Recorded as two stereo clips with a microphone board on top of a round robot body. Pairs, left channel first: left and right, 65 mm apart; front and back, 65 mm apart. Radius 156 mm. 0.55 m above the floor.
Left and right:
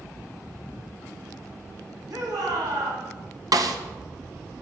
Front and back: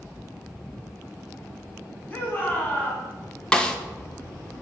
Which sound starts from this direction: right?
A snare drum, at 3.5 s.